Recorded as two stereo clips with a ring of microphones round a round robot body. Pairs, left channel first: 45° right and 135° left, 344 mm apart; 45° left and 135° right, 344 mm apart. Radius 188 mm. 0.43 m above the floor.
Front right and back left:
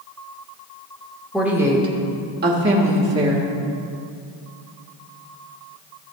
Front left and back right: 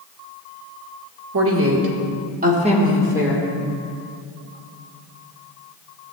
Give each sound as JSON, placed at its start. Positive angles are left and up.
{"t": 1.3, "sound": "a woman speaking", "azimuth_deg": -135, "distance_m": 1.5}